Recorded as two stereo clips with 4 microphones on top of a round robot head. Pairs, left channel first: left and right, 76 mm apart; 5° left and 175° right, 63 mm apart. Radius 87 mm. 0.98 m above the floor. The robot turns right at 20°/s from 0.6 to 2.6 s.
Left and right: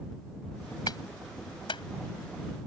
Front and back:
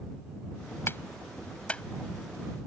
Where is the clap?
55° left; by 1.8 s 75° left.